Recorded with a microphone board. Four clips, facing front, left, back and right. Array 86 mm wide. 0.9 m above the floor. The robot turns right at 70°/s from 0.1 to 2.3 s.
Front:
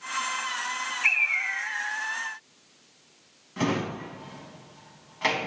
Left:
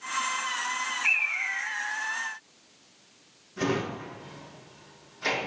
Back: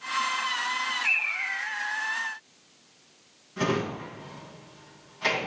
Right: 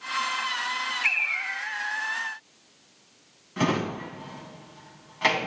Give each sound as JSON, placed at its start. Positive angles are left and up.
{"t": 1.0, "sound": "a bird", "azimuth_deg": -45, "distance_m": 6.0}
{"t": 3.6, "sound": "a drawer", "azimuth_deg": -65, "distance_m": 3.5}